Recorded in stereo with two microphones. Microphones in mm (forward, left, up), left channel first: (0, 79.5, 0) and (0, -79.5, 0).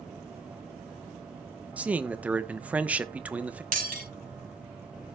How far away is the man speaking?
About 0.8 m.